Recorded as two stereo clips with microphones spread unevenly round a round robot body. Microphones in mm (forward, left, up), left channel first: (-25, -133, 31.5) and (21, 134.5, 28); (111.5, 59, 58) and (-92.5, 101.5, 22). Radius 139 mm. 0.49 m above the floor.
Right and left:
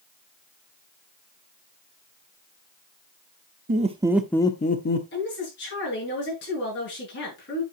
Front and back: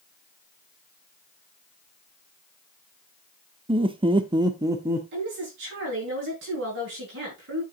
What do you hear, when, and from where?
3.7 s laughter: 125° left, 1.0 m; by 5.0 s 125° right, 1.1 m
5.1 s a woman speaking: 150° right, 6 m